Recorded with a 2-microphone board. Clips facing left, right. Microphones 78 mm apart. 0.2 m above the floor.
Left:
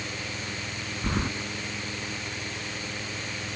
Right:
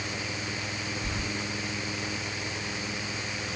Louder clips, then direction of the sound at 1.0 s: Left 5 dB; 55° left (ahead or behind).